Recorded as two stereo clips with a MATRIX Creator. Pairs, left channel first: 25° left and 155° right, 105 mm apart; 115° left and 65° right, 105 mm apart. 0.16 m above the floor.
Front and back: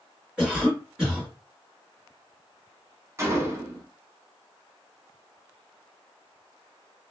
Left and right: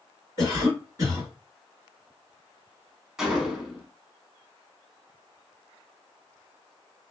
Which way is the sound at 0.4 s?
85° right.